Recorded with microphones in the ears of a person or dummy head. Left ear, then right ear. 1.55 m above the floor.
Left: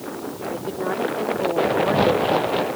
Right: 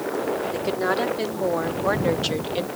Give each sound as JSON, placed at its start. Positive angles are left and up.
{"t": 0.5, "sound": "a woman speaking", "side_deg": -60}